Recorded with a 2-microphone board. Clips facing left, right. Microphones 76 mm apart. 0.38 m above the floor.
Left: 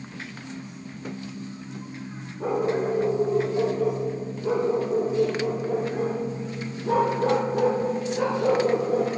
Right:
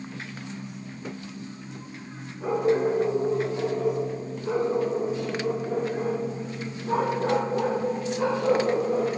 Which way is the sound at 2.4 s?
60° left (ahead or behind).